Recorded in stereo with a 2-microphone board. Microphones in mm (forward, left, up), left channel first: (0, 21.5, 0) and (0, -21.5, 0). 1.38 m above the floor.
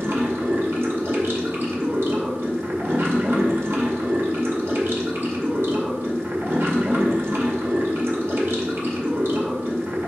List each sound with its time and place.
0.0 s running water: 65° right (ahead or behind), 2.0 m